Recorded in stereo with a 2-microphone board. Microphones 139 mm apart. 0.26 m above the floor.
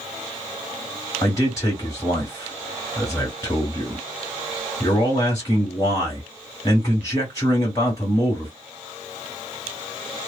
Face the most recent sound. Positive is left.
turn(degrees=25)  # may be behind; listen again after turning